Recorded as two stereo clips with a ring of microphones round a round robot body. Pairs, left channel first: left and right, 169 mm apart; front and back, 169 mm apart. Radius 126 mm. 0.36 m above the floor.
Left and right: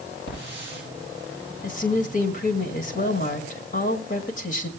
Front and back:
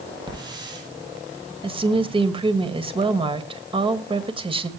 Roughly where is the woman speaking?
Behind left.